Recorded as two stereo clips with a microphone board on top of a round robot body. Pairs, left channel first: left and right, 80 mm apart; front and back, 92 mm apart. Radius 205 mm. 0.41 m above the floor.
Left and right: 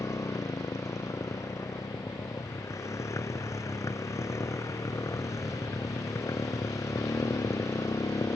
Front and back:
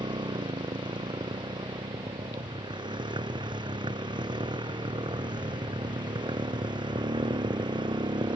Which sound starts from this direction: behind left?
A motorcycle, at 0.0 s.